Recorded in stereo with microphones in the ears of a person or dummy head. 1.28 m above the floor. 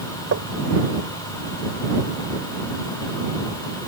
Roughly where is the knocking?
Right.